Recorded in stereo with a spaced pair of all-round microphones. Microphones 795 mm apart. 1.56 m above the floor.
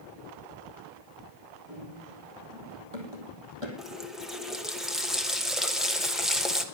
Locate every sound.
1.7 s running footsteps: 30° right (ahead or behind), 4.5 m; by 3.7 s 35° right (ahead or behind), 3.5 m
3.8 s a running tap: centre (ahead or behind), 1.0 m